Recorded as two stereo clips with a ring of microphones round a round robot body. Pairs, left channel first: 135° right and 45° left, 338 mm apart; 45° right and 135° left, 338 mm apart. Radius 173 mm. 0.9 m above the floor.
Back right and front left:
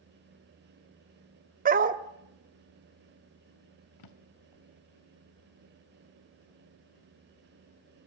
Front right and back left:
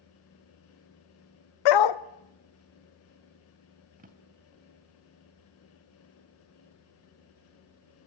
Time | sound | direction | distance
1.6 | a dog barking | 20° right | 0.8 m
4.0 | a drawer | 160° right | 1.3 m